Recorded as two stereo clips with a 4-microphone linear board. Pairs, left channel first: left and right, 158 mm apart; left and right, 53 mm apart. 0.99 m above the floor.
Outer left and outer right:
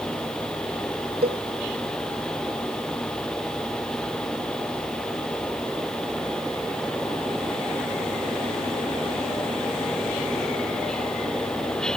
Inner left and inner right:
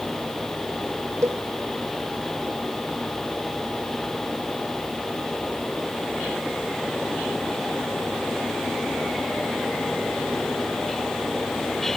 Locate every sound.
1.2 s a cowbell: 85° right